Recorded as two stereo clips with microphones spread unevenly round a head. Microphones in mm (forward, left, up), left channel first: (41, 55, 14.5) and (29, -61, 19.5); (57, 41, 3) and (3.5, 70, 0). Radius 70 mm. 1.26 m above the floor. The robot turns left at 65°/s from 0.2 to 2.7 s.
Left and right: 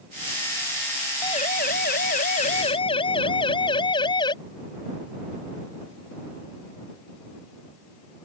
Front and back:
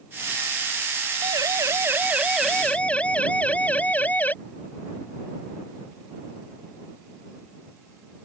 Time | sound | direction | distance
1.2 | a siren | 145° left | ?